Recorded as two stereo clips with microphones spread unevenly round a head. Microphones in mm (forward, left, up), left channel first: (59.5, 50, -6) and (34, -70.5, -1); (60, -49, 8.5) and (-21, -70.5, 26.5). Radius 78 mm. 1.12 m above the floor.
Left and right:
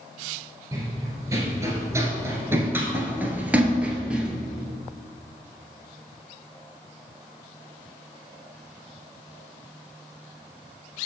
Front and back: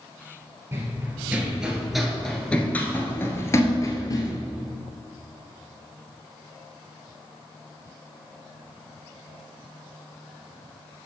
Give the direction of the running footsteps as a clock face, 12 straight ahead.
5 o'clock.